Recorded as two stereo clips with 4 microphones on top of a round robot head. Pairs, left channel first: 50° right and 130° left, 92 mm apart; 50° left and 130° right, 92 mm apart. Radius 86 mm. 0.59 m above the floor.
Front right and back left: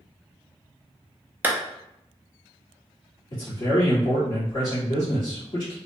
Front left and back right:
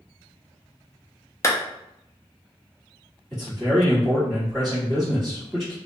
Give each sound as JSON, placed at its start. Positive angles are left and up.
{"t": 1.4, "sound": "a clap", "azimuth_deg": 75, "distance_m": 0.7}
{"t": 3.3, "sound": "a man speaking", "azimuth_deg": -30, "distance_m": 1.7}